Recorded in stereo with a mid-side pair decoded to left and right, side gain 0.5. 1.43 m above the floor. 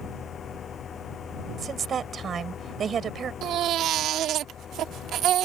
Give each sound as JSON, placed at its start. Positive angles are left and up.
{"t": 0.0, "sound": "a fan", "azimuth_deg": 45}
{"t": 1.6, "sound": "a woman speaking", "azimuth_deg": -45}
{"t": 3.4, "sound": "a baby crying", "azimuth_deg": -65}